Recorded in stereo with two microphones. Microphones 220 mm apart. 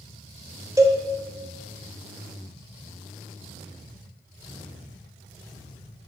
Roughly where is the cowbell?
Centre.